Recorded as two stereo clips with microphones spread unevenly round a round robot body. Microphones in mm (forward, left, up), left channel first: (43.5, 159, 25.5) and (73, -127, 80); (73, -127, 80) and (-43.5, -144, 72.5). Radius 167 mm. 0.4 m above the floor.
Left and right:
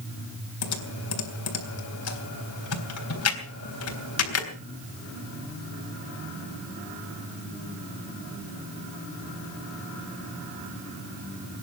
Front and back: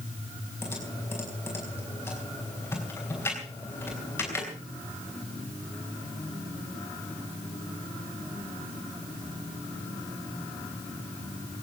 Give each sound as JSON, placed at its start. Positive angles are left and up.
{"t": 0.6, "sound": "typing on a keyboard", "azimuth_deg": 85, "distance_m": 3.5}